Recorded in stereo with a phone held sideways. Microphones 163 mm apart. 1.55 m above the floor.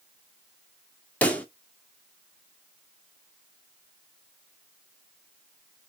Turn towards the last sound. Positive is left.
turn(degrees=10)  # may be behind; listen again after turning